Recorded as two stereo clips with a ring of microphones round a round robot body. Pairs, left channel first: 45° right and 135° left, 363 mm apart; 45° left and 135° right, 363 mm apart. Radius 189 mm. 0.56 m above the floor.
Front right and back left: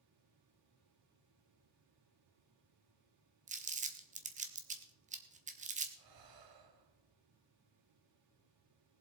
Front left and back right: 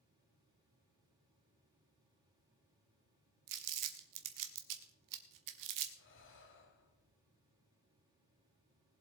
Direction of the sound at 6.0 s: 105° left.